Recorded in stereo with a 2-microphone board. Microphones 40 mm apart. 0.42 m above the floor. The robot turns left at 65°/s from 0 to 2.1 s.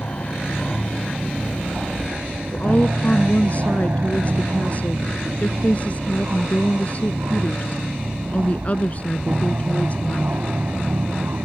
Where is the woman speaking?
35° left (ahead or behind).